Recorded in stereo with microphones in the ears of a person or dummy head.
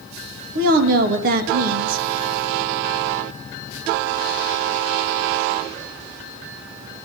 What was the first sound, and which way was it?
A woman speaking, 55° right (ahead or behind).